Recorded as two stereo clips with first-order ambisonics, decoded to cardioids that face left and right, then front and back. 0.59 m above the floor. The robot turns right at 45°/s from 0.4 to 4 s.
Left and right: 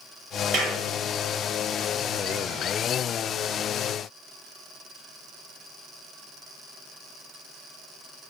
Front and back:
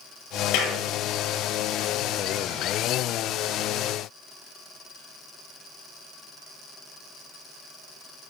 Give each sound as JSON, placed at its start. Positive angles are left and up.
{"t": 0.5, "sound": "a clap", "azimuth_deg": -30, "distance_m": 5.5}